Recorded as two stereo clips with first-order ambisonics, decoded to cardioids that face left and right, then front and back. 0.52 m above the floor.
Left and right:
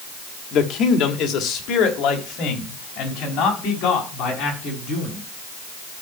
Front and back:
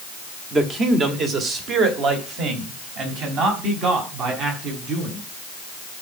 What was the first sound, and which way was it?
A man speaking, 115° left.